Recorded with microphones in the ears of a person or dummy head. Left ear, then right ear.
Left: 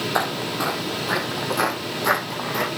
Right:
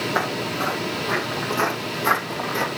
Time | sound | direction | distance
0.1 | footsteps | 30° left (ahead or behind) | 2 m